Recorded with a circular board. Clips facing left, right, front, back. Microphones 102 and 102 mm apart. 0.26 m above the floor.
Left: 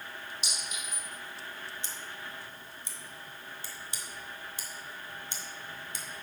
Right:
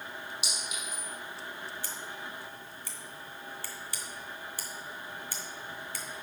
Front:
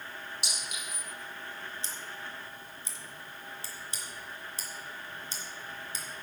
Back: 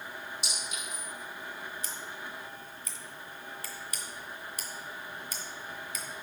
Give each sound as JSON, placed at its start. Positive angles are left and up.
{"t": 0.4, "sound": "a clink", "azimuth_deg": -10, "distance_m": 4.5}
{"t": 1.8, "sound": "scissors", "azimuth_deg": 40, "distance_m": 1.4}